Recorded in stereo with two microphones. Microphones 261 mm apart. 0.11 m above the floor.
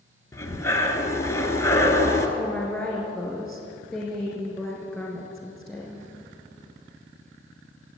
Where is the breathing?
10° left (ahead or behind), 1.6 m.